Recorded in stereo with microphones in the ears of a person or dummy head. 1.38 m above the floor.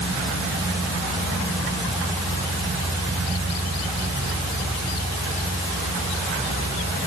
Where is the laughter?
I don't hear laughter.